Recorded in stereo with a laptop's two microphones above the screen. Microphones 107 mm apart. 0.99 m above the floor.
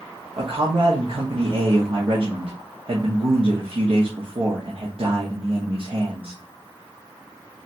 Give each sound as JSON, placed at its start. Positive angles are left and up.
{"t": 0.4, "sound": "a man speaking", "side_deg": -55, "distance_m": 1.3}